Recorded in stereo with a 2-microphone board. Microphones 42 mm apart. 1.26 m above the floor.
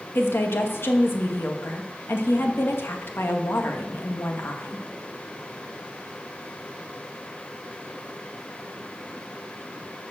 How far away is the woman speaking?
About 1.5 m.